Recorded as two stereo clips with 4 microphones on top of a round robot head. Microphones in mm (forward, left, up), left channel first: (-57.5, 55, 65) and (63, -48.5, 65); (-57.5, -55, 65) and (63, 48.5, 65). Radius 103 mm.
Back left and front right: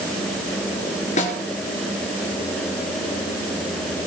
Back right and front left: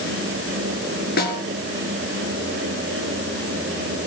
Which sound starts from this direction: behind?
A snare drum, at 1.2 s.